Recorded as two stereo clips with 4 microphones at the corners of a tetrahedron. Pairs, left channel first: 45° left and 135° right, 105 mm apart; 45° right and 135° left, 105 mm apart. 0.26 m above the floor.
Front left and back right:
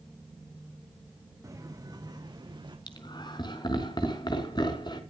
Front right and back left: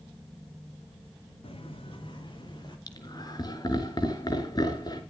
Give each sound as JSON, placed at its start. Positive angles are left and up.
{"t": 1.4, "sound": "footsteps", "azimuth_deg": -75, "distance_m": 3.5}
{"t": 2.9, "sound": "laughter", "azimuth_deg": 0, "distance_m": 3.5}